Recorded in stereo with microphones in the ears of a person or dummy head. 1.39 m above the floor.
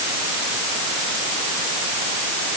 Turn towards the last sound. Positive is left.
No sound to turn to.